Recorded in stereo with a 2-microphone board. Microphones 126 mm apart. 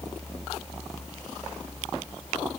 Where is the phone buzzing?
No phone buzzing in this recording.